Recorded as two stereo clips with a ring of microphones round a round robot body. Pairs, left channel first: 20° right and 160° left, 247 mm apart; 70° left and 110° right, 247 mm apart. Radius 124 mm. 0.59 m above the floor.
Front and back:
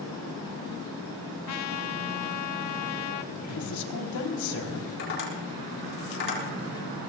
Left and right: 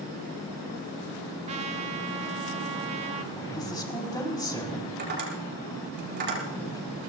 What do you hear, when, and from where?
1.5 s a trumpet: 45° right, 1.0 m
3.3 s a woman speaking: 5° right, 3.5 m
5.0 s tapping: 65° right, 6.5 m